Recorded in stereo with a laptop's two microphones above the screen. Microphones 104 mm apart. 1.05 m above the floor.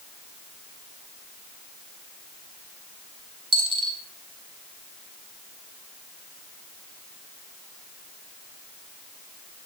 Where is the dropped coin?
55° right (ahead or behind), 2 m.